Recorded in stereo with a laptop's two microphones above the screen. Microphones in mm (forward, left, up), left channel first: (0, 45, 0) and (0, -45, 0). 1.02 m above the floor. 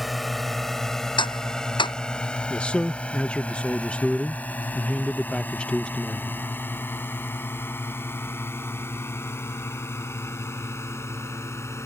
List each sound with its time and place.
0.0 s a drone: centre (ahead or behind); by 11.9 s 30° left (ahead or behind)
1.2 s ticking: 60° left (ahead or behind)
2.5 s a man speaking: 10° left (ahead or behind)